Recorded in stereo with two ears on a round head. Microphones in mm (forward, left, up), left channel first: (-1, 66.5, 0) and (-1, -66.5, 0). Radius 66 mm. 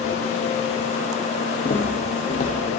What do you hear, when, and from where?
1.6 s footsteps: 45° left (ahead or behind), 2 m; by 2.8 s 55° left (ahead or behind), 2.5 m